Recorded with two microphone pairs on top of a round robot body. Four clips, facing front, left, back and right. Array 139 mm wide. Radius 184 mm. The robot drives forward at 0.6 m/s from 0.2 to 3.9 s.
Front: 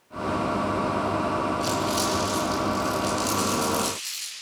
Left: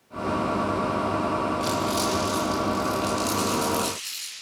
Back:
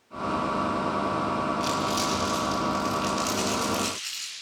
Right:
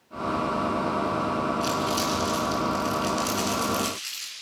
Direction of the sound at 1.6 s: 155° right.